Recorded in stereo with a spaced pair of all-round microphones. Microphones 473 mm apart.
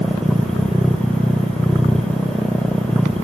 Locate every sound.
0.0 s a machine running: centre (ahead or behind)